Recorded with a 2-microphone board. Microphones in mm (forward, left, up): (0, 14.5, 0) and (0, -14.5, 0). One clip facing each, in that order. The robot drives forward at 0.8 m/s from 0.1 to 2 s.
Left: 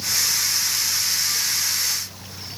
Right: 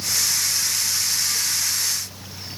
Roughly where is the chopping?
No chopping in this recording.